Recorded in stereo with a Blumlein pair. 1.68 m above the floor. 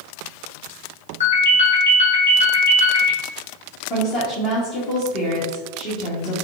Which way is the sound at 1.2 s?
65° left.